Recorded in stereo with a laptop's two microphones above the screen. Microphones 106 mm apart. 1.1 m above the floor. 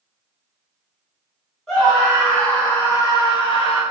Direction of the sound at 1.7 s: 5° left (ahead or behind).